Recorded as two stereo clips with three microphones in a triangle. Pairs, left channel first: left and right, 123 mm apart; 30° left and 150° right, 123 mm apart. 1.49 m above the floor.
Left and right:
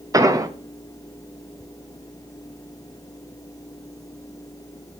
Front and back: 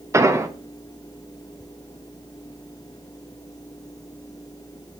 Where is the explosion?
110° right, 0.6 m.